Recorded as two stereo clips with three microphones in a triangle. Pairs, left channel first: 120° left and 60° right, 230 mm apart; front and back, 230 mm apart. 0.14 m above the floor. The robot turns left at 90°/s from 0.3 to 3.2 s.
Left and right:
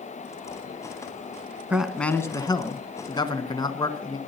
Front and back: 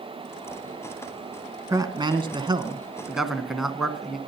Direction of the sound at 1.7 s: 135° right.